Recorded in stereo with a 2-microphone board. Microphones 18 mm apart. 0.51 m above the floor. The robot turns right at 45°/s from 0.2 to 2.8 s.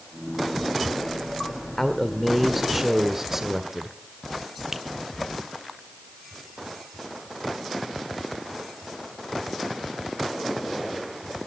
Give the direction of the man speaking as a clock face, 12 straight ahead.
7 o'clock.